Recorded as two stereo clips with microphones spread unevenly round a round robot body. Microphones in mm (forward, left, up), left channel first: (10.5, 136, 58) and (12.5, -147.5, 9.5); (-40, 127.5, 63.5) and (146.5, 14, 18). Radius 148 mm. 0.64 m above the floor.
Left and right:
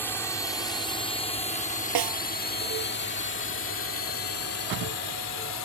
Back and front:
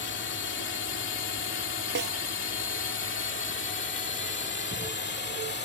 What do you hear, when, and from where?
0.0 s a drone: straight behind; by 5.7 s 115° left
1.9 s a snare drum: 85° right